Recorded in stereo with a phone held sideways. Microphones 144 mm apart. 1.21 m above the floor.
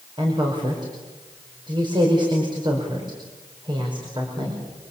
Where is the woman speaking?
30° right (ahead or behind), 5.5 m.